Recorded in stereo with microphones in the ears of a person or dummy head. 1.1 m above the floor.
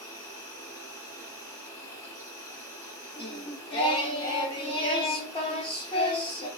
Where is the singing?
25° left (ahead or behind), 0.8 m.